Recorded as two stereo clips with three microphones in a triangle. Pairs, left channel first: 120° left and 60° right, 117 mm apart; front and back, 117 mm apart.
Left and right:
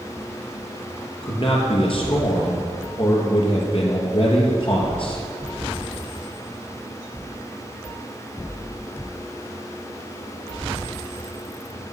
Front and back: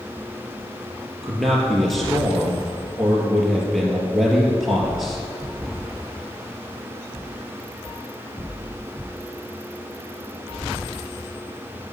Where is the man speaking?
90° left, 3 m.